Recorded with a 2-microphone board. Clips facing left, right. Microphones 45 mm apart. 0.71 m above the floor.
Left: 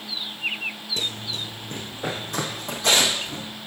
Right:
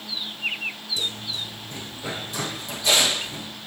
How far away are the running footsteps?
About 1.1 m.